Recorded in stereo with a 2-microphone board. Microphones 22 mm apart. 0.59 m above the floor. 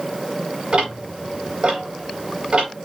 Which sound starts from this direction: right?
Ticking, at 0.7 s.